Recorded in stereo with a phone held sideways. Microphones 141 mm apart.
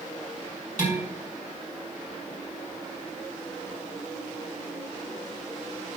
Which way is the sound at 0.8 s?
65° left (ahead or behind).